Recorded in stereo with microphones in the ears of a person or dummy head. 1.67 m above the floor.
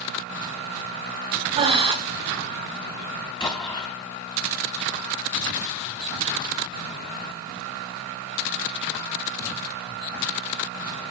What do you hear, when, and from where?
1.6 s breathing: 35° right (ahead or behind), 0.9 m
3.4 s an explosion: 20° left (ahead or behind), 2.5 m